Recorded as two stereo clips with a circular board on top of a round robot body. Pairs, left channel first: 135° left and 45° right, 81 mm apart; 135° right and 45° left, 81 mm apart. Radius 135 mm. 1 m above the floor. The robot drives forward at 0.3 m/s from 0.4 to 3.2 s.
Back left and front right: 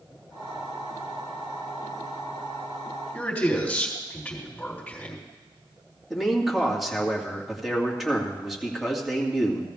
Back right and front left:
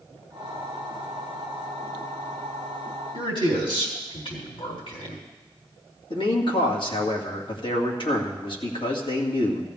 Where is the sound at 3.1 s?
145° right, 4 m.